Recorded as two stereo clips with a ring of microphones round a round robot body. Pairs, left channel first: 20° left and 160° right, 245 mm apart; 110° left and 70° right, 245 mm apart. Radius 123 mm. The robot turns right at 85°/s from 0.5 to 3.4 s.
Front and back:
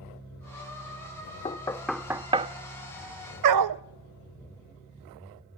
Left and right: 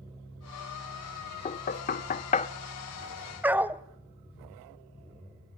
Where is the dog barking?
150° right, 0.6 m.